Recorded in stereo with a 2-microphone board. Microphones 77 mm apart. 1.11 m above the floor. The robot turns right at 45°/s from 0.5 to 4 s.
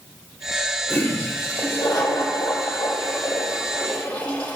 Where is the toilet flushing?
20° left, 3.5 m; by 4.6 s 160° left, 3.5 m.